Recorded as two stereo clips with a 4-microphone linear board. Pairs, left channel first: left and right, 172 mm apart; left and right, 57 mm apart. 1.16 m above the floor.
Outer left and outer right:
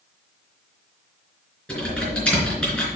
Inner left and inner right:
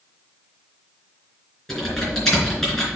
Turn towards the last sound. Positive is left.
turn(degrees=5)  # may be behind; listen again after turning